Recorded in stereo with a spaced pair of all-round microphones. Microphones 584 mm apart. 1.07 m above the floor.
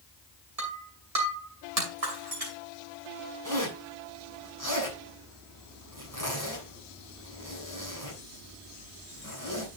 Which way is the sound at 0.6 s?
80° right.